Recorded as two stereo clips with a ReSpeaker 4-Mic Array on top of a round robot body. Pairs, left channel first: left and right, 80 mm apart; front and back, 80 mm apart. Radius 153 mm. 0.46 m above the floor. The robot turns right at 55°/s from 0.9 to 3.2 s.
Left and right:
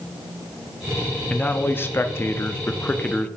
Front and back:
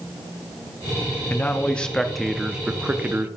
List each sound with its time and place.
1.3 s a man speaking: 40° left, 0.7 m; by 3.3 s 145° left, 0.7 m